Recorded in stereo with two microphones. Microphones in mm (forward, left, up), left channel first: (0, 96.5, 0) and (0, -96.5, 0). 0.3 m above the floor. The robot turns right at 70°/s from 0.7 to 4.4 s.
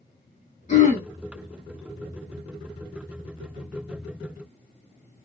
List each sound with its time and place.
0.7 s throat clearing: 40° left (ahead or behind), 1.2 m; by 1.1 s 50° left (ahead or behind), 1.2 m